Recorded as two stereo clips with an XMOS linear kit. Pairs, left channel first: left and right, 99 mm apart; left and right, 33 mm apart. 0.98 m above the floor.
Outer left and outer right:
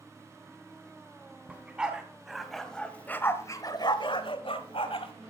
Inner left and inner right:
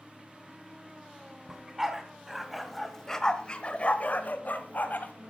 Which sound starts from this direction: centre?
A dog barking, at 1.5 s.